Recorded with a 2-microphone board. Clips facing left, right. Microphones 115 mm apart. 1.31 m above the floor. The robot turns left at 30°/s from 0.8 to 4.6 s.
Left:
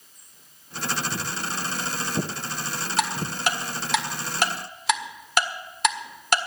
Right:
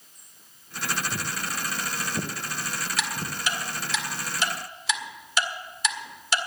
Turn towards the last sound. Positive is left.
turn(degrees=60)  # may be behind; listen again after turning